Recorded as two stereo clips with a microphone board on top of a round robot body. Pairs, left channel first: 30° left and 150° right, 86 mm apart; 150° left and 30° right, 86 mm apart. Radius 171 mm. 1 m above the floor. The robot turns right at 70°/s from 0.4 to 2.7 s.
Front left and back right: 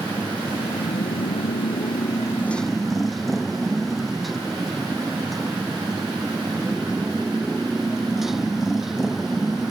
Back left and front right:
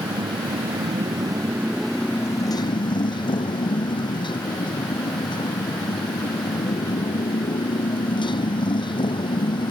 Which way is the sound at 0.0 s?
45° right.